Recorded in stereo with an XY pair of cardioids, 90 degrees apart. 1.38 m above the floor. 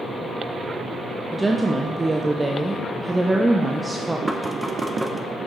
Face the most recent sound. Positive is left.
turn(degrees=-10)